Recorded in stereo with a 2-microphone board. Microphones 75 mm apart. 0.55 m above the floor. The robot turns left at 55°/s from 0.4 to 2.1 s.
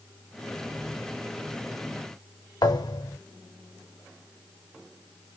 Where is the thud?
65° left (ahead or behind), 0.9 m.